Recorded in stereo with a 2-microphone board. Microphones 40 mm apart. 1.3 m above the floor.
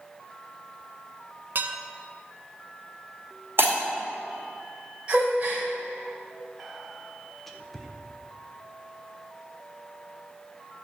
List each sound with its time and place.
1.6 s dishes clattering: 55° right (ahead or behind), 0.8 m
3.6 s breaking glass: 65° right (ahead or behind), 2 m
5.1 s a gasp: 25° right (ahead or behind), 2.5 m
6.6 s whispering: 5° left (ahead or behind), 1.2 m